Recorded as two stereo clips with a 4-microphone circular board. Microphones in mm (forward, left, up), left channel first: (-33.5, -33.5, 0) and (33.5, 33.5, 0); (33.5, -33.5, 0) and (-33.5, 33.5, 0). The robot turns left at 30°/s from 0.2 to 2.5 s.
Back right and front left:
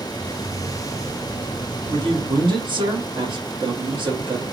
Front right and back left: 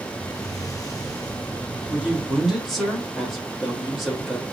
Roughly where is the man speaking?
Ahead left.